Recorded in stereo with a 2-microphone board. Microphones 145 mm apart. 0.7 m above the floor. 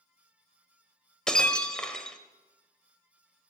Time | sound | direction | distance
1.3 | breaking glass | 5° left (ahead or behind) | 1.4 m